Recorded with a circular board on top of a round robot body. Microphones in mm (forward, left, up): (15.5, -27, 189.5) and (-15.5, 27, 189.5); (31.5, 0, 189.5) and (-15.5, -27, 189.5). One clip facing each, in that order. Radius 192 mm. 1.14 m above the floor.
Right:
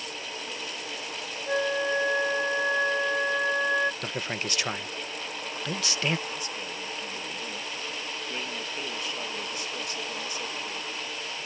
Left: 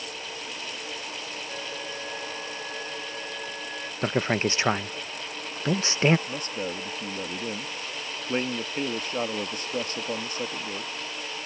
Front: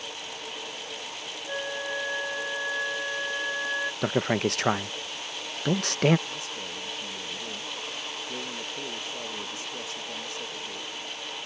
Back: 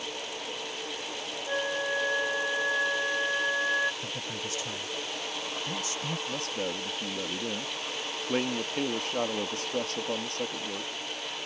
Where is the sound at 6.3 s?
175° left.